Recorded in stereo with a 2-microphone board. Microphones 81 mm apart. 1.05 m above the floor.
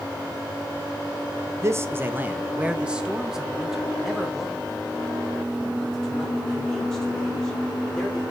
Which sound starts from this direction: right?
A man speaking, at 1.6 s.